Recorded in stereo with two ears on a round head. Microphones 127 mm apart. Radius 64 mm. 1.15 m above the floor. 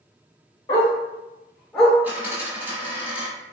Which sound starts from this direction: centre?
A dropped coin, at 2.0 s.